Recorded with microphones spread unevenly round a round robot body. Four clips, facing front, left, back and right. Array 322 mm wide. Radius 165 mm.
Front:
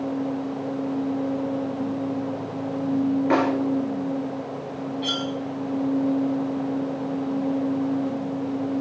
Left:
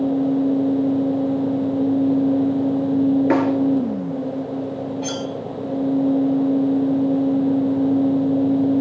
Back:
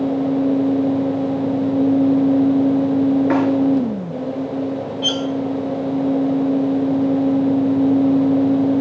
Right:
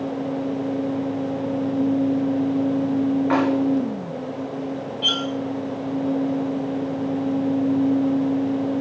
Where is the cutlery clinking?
110° left, 0.5 m.